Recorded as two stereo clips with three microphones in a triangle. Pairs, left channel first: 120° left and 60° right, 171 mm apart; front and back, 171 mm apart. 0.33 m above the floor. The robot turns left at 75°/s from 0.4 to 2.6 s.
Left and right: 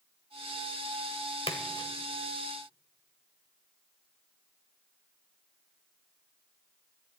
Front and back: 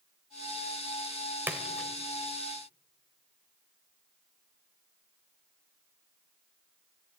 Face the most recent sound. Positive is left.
turn(degrees=25)